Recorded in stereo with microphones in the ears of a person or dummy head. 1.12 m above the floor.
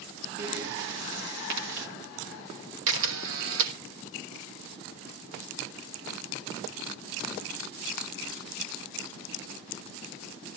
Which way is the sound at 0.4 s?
65° right (ahead or behind).